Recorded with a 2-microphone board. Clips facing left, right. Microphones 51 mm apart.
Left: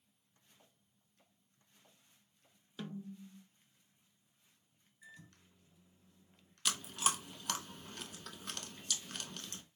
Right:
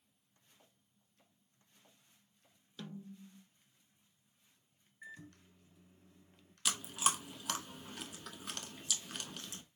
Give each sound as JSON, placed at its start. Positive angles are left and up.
{"t": 2.8, "sound": "a snare drum", "side_deg": 15, "distance_m": 0.5}
{"t": 5.0, "sound": "a microwave", "side_deg": -40, "distance_m": 1.3}
{"t": 6.7, "sound": "chewing", "side_deg": -5, "distance_m": 0.7}